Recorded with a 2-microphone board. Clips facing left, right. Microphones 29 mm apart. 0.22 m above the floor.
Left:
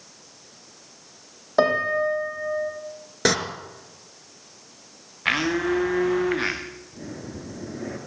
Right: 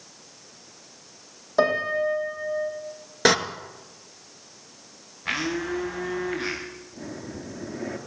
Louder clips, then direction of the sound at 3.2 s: Right 2 dB; 15° right (ahead or behind).